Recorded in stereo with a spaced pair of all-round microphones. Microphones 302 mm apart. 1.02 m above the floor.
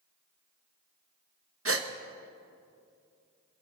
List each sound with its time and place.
1.6 s a gasp: 45° right (ahead or behind), 0.9 m